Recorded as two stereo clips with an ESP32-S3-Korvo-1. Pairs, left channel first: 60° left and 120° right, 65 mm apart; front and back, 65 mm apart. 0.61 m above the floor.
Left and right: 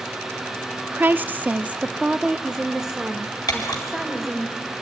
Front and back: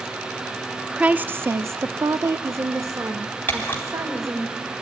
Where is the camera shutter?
60° left, 3.5 m.